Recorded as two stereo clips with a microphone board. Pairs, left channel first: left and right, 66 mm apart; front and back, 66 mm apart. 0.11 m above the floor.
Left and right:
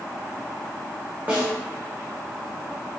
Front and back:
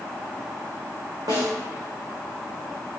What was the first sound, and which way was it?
A snare drum, 150° right.